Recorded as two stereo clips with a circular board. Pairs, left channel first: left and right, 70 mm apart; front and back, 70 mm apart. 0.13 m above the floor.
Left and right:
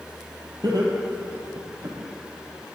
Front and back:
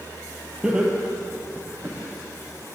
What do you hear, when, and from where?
0.6 s laughter: 105° right, 4 m; by 2.0 s 115° right, 5.5 m